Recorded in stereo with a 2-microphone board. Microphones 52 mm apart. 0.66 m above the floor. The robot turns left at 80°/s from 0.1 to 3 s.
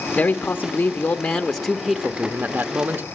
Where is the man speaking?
115° left, 0.9 m; by 3.0 s 115° right, 0.9 m.